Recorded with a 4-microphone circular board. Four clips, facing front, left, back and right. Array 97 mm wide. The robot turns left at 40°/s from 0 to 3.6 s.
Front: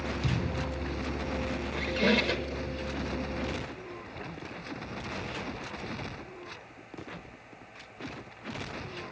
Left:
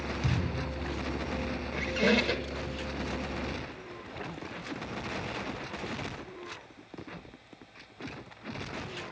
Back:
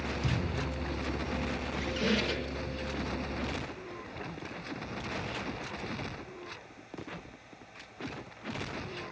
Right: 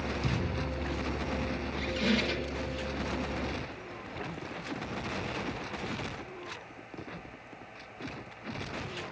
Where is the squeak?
65° left, 1.0 m; by 2.6 s 30° left, 1.0 m.